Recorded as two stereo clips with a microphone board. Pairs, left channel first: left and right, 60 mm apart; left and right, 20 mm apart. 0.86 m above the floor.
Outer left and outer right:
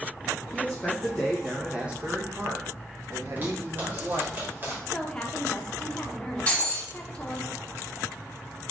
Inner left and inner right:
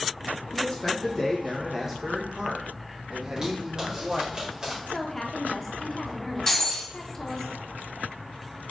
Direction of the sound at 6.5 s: 20° left (ahead or behind).